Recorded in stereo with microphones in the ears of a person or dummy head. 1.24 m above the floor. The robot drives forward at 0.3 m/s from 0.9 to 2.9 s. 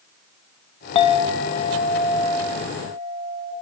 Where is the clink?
35° left (ahead or behind), 0.6 m; by 3.5 s 20° left (ahead or behind), 1.1 m.